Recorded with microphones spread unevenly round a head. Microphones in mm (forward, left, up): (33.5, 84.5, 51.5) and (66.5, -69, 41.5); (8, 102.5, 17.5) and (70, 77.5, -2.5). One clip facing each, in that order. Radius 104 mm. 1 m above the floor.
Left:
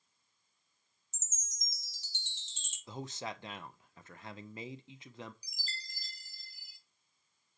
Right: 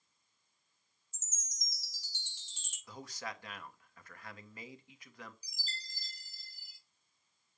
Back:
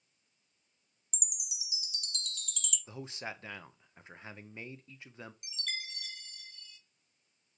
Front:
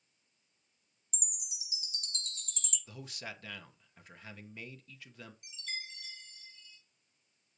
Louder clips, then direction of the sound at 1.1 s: Even, back 3 dB; 35° left.